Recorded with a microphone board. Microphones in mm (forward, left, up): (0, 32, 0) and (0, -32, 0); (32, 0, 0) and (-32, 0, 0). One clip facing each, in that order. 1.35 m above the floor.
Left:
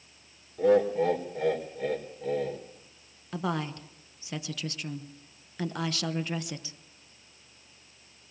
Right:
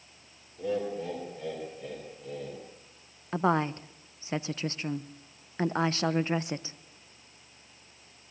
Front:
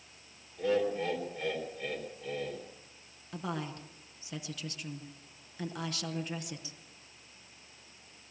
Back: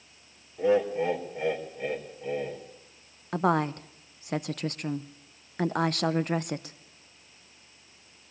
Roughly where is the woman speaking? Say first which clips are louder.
Right 5 dB, back 13 dB; behind right.